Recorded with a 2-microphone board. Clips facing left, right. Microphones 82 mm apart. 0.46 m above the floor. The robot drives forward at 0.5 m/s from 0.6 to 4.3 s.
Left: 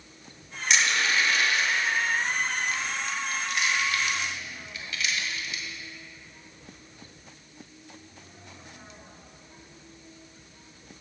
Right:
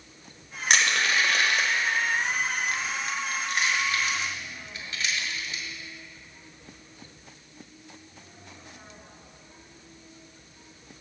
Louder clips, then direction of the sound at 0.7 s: Right 1 dB; 60° right (ahead or behind).